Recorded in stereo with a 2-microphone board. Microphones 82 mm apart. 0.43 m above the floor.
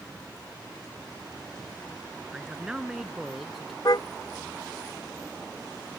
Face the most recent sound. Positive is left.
turn(degrees=55)  # may be behind; listen again after turning